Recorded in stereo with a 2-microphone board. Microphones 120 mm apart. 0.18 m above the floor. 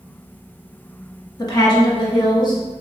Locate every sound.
1.4 s a woman speaking: 35° left (ahead or behind), 1.1 m; by 2.6 s 40° left (ahead or behind), 1.6 m